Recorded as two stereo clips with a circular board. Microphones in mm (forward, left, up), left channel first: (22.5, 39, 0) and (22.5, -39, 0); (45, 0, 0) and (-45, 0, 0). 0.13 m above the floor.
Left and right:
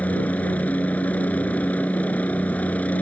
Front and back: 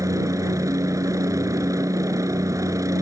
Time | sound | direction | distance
0.0 | a helicopter | 155° left | ?